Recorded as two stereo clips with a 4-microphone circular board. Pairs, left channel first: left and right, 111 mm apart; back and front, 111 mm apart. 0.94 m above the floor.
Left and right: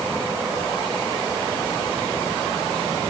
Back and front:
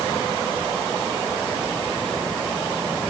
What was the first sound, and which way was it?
Only background noise.